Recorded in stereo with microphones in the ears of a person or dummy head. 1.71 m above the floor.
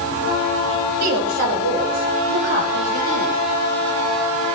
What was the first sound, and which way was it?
A woman speaking, 50° right (ahead or behind).